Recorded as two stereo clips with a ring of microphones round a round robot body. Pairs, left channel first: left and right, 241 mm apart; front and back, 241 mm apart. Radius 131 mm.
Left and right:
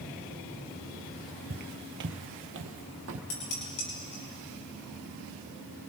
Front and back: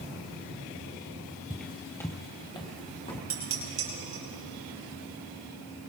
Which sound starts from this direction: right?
Footsteps, at 1.5 s.